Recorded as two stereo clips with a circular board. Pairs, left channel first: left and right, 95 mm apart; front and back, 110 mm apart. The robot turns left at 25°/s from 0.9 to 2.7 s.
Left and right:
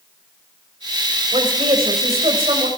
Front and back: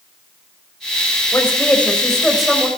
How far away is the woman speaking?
About 4.5 m.